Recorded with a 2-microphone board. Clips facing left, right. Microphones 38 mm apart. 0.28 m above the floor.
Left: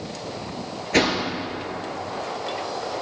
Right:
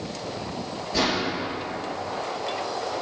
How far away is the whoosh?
About 4 m.